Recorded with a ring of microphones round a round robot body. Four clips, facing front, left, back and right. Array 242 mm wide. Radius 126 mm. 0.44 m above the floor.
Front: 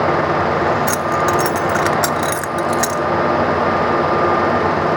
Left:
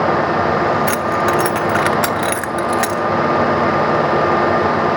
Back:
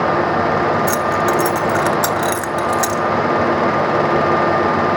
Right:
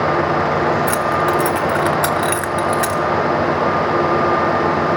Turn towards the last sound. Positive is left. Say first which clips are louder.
# even, even
turn(degrees=75)